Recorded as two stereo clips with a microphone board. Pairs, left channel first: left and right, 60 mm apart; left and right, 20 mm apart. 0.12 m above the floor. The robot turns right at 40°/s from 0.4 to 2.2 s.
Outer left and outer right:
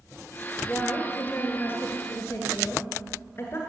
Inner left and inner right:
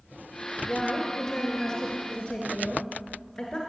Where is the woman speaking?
30° left, 1.5 m; by 3.6 s 95° left, 1.5 m.